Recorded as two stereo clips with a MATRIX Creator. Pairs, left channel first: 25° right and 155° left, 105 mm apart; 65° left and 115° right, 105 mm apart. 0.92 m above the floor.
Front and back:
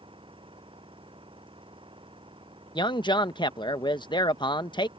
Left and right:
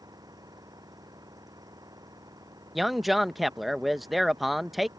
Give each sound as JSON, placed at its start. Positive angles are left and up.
{"t": 0.0, "sound": "an engine running", "azimuth_deg": -165}
{"t": 2.8, "sound": "a man speaking", "azimuth_deg": -25}